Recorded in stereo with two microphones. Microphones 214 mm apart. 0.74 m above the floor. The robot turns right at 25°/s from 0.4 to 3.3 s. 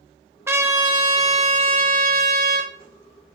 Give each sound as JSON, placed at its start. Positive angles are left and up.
{"t": 0.5, "sound": "a trumpet", "azimuth_deg": -165, "distance_m": 0.7}